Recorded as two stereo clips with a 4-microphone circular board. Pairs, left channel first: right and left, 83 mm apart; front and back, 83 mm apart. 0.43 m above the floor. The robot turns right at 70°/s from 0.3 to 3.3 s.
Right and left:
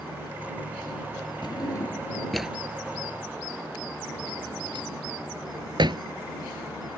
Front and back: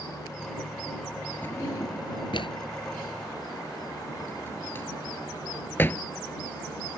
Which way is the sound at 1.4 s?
65° right.